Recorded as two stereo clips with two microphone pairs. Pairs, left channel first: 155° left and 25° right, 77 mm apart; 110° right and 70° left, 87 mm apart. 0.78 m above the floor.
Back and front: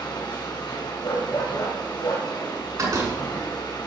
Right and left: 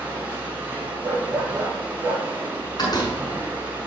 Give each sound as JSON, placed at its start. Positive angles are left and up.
{"t": 0.0, "sound": "running water", "azimuth_deg": 140, "distance_m": 6.0}
{"t": 1.0, "sound": "a dog barking", "azimuth_deg": 135, "distance_m": 6.0}
{"t": 2.8, "sound": "a door slam", "azimuth_deg": -70, "distance_m": 6.0}